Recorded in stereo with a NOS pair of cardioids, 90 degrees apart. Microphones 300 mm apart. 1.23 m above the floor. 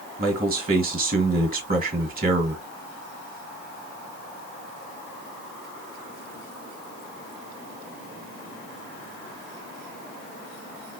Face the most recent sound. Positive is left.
turn(degrees=-25)